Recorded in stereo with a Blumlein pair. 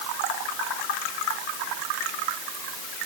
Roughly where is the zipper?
I don't hear a zipper.